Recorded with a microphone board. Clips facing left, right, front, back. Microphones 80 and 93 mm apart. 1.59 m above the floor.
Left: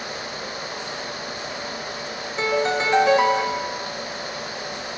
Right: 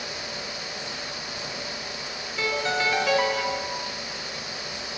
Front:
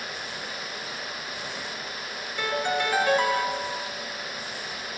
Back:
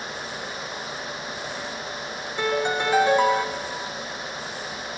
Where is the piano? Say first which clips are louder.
Left 4 dB, back 3 dB; 125° left, 0.7 m.